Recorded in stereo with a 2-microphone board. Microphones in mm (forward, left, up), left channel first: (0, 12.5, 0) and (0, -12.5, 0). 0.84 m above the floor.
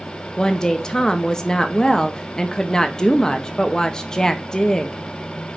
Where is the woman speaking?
30° left (ahead or behind), 0.8 m.